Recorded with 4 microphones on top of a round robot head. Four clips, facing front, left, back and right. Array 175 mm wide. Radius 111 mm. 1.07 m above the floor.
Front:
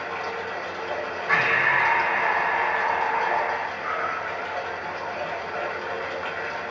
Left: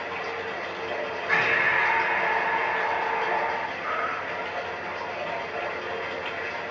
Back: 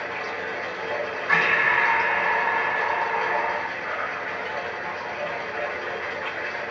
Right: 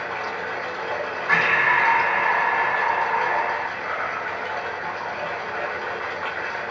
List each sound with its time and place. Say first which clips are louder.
0.0 s running water: right 3 dB, front 1 dB; 70° right, 2.5 m
1.3 s breathing: right 5 dB, even; 90° right, 1.7 m
3.8 s a cat meowing: right 2 dB, front 2 dB; 30° right, 0.9 m